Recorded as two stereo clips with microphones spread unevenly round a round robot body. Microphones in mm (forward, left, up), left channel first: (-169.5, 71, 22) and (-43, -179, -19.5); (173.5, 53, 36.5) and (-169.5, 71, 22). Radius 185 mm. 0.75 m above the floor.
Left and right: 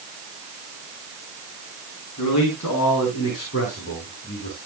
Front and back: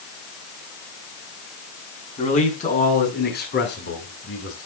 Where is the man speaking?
70° left, 7.5 m; by 4.7 s 50° left, 7.5 m.